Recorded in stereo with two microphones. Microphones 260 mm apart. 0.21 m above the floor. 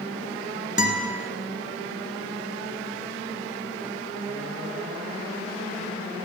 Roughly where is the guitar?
Right.